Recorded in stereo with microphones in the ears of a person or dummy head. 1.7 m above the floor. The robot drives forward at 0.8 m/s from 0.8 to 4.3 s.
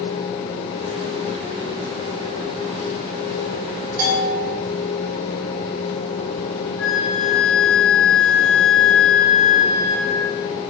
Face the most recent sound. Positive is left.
turn(degrees=0)  # may be behind; listen again after turning